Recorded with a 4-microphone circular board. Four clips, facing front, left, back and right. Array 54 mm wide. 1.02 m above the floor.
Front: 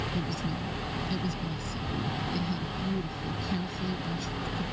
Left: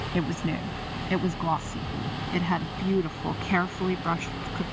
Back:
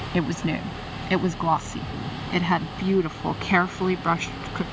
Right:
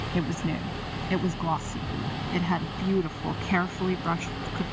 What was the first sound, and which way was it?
A woman speaking, 175° left.